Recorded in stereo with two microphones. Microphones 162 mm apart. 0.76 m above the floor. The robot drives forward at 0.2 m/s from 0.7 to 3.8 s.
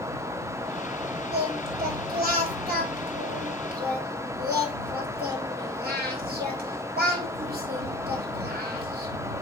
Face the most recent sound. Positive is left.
turn(degrees=-75)  # may be behind; listen again after turning